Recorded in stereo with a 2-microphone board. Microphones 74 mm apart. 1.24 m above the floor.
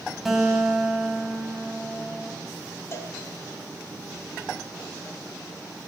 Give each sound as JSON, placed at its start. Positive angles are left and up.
{"t": 0.2, "sound": "a guitar", "side_deg": -5, "distance_m": 7.0}
{"t": 2.9, "sound": "a cowbell", "side_deg": 40, "distance_m": 4.5}